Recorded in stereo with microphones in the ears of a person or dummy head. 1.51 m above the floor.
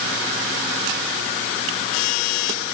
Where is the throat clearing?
No throat clearing in this recording.